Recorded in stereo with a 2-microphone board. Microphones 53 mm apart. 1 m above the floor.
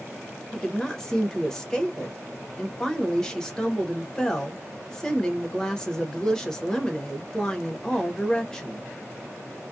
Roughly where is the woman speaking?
Centre.